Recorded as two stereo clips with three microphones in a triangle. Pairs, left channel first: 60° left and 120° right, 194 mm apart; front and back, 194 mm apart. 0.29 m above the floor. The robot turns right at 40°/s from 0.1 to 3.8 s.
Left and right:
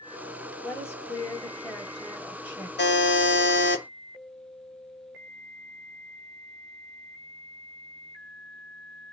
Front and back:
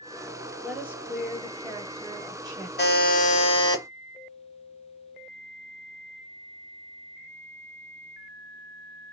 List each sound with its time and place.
0.6 s a woman speaking: 100° left, 0.9 m; by 2.7 s 175° right, 0.9 m
2.8 s a buzzer: 30° left, 0.8 m; by 3.8 s 75° left, 0.8 m